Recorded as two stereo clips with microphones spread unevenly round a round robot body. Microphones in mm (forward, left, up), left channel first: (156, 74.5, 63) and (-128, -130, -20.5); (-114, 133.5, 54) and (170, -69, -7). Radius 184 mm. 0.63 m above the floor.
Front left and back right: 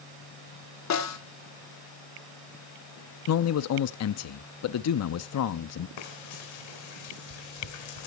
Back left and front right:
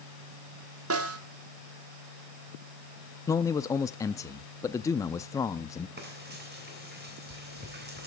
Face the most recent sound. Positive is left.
turn(degrees=25)